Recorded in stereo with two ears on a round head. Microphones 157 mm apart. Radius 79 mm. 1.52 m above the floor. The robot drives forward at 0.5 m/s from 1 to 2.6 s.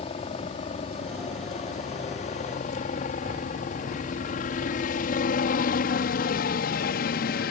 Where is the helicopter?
35° left (ahead or behind); by 7.5 s 55° left (ahead or behind).